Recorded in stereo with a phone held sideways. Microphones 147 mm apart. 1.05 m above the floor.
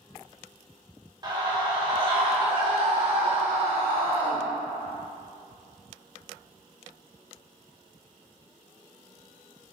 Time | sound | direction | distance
1.2 | a scream | 30° right (ahead or behind) | 2.0 m